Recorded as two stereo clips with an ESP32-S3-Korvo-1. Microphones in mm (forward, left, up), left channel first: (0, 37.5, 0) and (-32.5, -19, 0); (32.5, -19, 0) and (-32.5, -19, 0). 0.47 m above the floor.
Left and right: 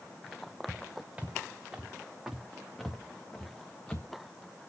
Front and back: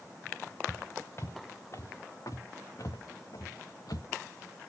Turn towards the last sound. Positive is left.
turn(degrees=-10)